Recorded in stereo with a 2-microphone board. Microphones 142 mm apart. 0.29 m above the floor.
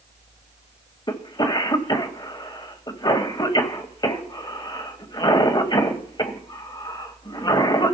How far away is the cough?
About 1.7 m.